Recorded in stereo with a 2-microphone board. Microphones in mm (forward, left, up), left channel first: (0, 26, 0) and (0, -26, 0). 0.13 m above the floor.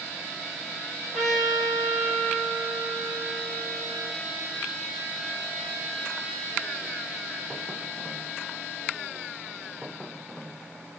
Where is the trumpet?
15° left (ahead or behind), 3 m.